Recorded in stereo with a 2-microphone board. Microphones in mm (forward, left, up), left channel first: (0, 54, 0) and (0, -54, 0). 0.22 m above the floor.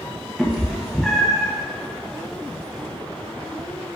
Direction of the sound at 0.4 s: Centre (ahead or behind).